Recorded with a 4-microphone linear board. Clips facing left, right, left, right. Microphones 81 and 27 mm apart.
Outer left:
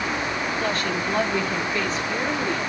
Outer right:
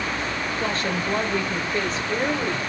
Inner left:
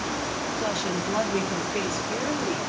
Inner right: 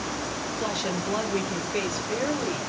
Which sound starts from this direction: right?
A woman speaking, at 0.6 s.